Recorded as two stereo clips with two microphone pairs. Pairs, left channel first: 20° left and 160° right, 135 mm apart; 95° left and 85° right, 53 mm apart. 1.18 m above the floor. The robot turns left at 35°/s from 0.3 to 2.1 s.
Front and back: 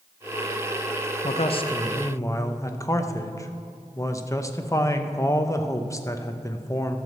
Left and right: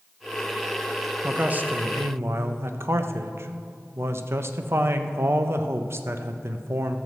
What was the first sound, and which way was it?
A man speaking, 15° right.